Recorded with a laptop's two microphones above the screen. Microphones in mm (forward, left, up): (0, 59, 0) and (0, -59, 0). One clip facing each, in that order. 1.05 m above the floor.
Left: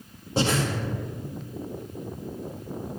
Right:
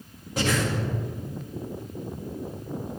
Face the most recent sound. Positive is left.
turn(degrees=30)  # may be behind; listen again after turning